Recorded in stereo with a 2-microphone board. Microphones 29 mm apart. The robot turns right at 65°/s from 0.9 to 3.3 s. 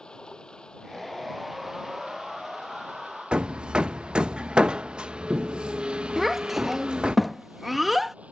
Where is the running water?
150° left; by 8.3 s 55° right.